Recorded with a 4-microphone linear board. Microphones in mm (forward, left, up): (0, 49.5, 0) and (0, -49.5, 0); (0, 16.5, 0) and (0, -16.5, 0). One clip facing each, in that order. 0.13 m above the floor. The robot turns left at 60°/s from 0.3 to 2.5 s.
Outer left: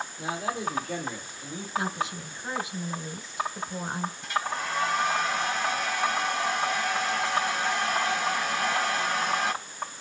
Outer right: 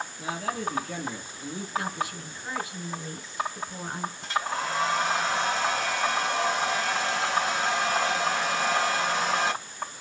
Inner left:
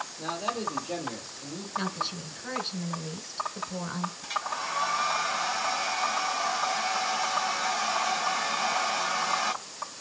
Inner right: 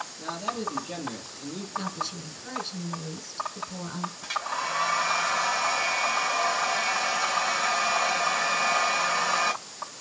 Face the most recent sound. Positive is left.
turn(degrees=-75)  # may be behind; listen again after turning